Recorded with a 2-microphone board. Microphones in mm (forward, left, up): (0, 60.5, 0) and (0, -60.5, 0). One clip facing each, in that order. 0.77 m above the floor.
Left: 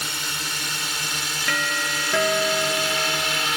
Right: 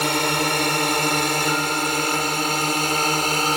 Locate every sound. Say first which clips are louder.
0.0 s a drone: right 12 dB; 65° right (ahead or behind); by 3.6 s 40° right (ahead or behind)
1.5 s a doorbell: right 5 dB; 85° left